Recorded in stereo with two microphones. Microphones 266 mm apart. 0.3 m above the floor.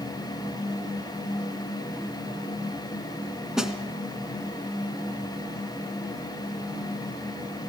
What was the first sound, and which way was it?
A snare drum, centre (ahead or behind).